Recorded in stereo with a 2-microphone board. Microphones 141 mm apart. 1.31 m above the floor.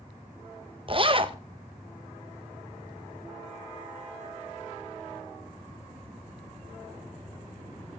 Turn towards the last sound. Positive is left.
turn(degrees=-40)  # may be behind; listen again after turning